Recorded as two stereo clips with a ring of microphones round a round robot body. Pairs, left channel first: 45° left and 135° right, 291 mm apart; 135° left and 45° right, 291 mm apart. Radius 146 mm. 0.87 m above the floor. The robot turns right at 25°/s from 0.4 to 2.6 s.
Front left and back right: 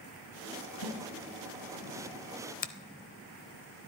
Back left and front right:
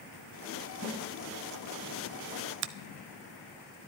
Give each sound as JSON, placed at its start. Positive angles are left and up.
{"t": 0.8, "sound": "a snare drum", "azimuth_deg": 70, "distance_m": 4.5}
{"t": 2.6, "sound": "a finger snap", "azimuth_deg": -10, "distance_m": 0.6}